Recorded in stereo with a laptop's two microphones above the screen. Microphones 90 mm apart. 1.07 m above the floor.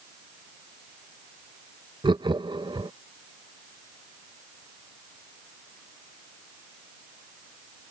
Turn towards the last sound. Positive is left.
turn(degrees=-60)  # may be behind; listen again after turning